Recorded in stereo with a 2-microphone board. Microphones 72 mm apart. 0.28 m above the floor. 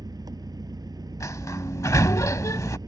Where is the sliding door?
50° left (ahead or behind).